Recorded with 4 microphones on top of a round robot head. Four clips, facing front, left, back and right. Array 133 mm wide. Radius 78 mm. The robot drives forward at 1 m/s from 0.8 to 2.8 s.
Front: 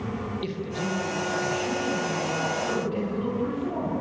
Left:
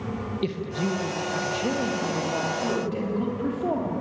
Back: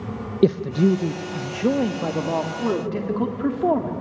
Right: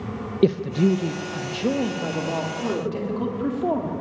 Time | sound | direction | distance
0.4 | a man speaking | 145° right | 0.9 m